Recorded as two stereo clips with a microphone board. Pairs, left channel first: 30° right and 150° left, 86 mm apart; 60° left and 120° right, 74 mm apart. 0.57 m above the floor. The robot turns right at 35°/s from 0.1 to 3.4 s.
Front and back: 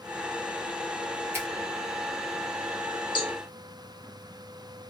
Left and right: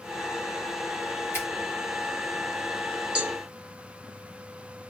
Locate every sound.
1.3 s a finger snap: 100° left, 1.1 m; by 1.5 s 105° left, 1.1 m
3.1 s a cowbell: 45° right, 0.8 m; by 3.4 s 35° right, 0.8 m